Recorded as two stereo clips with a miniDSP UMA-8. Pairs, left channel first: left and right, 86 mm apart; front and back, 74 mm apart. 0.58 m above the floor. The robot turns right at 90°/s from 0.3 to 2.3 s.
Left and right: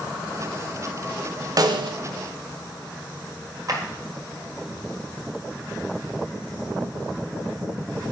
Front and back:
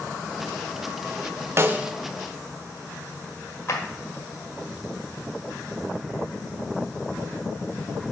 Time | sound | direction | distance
1.6 | a snare drum | 130° right | 0.6 m
3.7 | a clap | 50° right | 1.7 m